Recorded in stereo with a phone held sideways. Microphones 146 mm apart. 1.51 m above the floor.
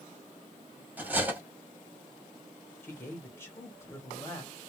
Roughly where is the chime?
No chime in this recording.